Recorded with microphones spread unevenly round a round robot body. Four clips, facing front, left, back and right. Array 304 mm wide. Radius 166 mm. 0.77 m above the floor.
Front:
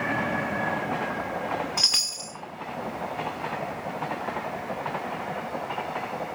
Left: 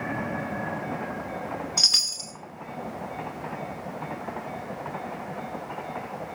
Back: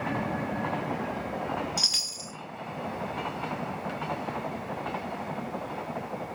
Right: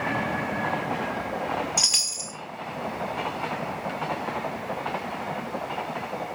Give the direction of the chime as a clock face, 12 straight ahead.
12 o'clock.